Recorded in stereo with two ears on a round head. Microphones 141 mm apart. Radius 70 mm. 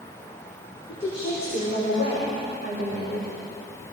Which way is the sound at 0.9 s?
40° left (ahead or behind).